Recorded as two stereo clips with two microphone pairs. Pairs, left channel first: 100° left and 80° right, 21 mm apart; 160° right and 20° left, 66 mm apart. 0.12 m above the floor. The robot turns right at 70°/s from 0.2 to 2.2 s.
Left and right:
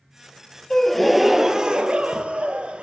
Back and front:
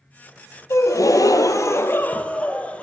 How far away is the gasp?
About 0.5 m.